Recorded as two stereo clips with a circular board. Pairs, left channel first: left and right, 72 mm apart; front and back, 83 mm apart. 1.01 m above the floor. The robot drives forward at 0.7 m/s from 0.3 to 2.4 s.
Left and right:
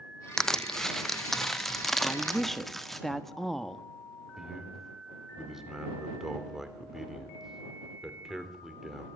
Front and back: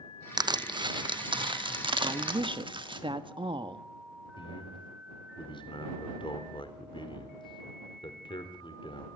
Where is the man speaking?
5° right, 3.5 m.